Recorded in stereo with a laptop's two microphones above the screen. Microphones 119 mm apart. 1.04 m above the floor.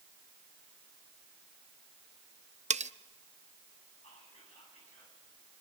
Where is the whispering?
70° left (ahead or behind), 9.5 m.